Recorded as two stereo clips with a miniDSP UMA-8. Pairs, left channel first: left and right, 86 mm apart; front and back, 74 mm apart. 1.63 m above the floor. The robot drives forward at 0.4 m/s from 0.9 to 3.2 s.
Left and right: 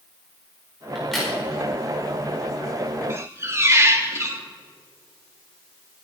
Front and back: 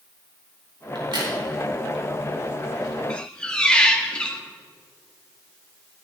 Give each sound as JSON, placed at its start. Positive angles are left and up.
{"t": 0.9, "sound": "a crack", "azimuth_deg": 180, "distance_m": 4.5}
{"t": 3.1, "sound": "a squeak", "azimuth_deg": -65, "distance_m": 1.2}